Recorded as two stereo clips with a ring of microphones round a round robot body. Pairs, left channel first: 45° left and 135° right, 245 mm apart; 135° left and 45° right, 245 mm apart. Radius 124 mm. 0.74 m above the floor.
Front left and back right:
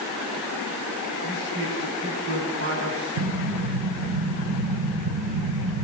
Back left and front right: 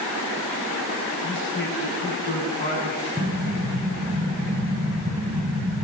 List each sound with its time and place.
1.2 s a man speaking: 175° left, 7 m; by 3.1 s 170° right, 8.5 m
3.2 s an explosion: 130° right, 1.1 m